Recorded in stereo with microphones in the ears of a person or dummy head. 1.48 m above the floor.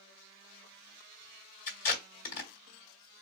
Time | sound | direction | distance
1.7 | tape being pulled | 45° left (ahead or behind) | 1.5 m